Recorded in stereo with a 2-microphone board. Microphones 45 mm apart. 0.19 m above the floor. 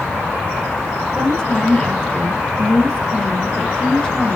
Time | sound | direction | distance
1.1 | a woman speaking | 20° left (ahead or behind) | 5.5 m